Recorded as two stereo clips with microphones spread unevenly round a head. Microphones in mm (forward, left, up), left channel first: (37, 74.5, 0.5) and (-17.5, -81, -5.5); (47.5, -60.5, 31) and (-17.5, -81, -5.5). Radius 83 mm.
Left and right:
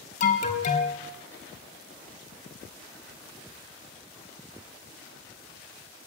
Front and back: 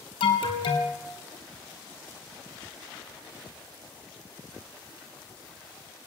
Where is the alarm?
25° left, 3.5 m.